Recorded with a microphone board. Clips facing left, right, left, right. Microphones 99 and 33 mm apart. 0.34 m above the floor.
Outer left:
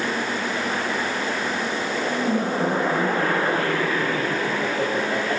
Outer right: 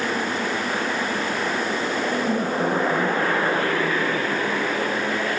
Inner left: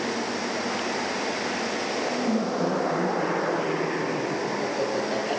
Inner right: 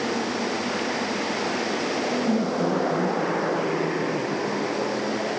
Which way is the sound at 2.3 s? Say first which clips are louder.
Even, inner right 1 dB; 10° right (ahead or behind).